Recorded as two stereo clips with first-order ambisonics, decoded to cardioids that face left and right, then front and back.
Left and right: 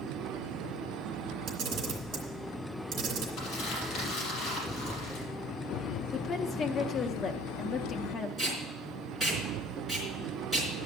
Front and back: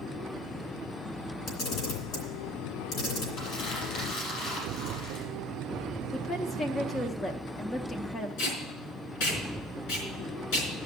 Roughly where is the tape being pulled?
Ahead.